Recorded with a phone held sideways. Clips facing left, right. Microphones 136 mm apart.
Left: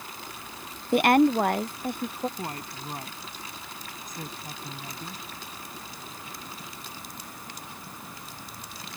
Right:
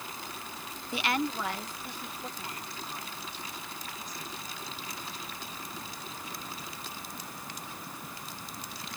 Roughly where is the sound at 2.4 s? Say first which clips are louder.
Left 5 dB; left.